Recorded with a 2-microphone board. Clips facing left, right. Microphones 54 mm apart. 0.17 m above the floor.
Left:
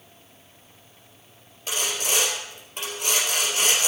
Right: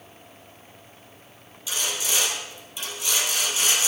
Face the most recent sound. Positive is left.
turn(degrees=50)  # may be behind; listen again after turning